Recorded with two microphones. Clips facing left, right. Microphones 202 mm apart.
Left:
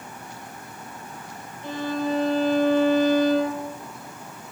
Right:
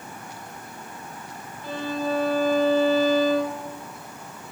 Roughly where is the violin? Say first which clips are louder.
Left 1 dB; left.